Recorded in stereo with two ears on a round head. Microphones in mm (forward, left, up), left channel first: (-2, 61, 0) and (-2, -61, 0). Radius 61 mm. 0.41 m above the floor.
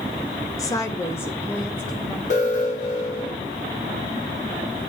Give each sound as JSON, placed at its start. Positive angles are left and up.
{"t": 0.6, "sound": "a woman speaking", "side_deg": 25, "distance_m": 0.8}
{"t": 2.3, "sound": "an alarm", "side_deg": 60, "distance_m": 3.5}